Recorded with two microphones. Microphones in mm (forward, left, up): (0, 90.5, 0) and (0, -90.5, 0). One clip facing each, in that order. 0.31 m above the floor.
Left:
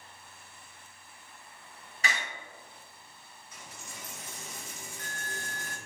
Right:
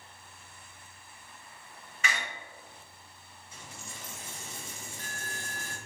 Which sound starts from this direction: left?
A door slam, at 2.0 s.